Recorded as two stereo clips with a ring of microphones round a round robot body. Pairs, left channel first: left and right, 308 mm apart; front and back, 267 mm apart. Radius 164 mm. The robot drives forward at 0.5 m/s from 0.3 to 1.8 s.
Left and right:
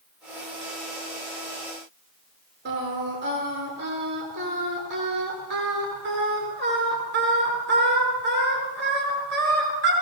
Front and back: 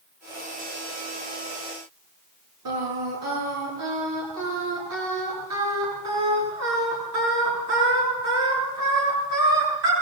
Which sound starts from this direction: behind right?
Singing, at 2.6 s.